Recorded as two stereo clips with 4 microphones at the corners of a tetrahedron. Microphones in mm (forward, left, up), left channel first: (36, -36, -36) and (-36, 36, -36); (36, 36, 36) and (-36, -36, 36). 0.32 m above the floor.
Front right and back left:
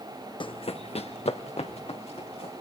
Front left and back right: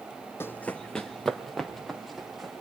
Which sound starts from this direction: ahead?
Running footsteps, at 0.4 s.